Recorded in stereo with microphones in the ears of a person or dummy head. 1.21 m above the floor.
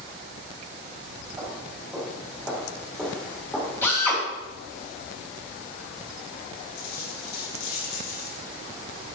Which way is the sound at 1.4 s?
10° right (ahead or behind).